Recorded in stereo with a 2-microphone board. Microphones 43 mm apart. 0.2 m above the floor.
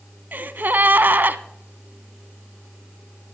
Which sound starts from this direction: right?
A gasp, at 0.3 s.